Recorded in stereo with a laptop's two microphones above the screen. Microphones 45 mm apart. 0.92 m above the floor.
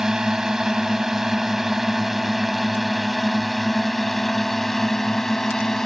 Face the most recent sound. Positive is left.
turn(degrees=10)  # may be behind; listen again after turning